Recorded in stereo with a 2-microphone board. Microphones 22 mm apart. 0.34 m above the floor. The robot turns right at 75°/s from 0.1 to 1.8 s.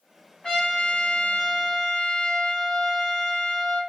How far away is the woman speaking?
No woman speaking in this recording.